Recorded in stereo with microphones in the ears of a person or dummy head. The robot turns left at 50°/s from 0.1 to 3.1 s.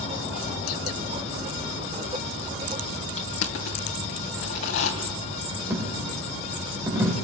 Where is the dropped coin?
10° right (ahead or behind), 3 m.